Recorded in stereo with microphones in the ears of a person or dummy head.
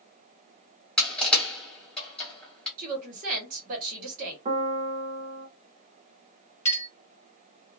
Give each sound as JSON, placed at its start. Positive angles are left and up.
{"t": 1.0, "sound": "crushing", "side_deg": 5, "distance_m": 1.8}
{"t": 2.8, "sound": "a woman speaking", "side_deg": -45, "distance_m": 1.5}
{"t": 4.5, "sound": "a piano", "side_deg": -30, "distance_m": 0.7}
{"t": 6.7, "sound": "a clink", "side_deg": 15, "distance_m": 1.5}